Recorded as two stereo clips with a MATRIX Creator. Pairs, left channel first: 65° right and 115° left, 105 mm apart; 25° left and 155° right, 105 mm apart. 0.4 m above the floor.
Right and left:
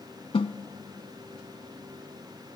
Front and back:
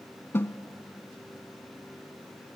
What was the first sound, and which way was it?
A snare drum, 45° right.